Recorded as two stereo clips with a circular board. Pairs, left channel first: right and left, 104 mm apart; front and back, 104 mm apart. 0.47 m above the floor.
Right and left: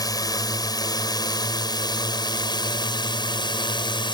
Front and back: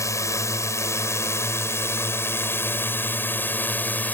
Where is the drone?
50° right; by 4.1 s 70° right.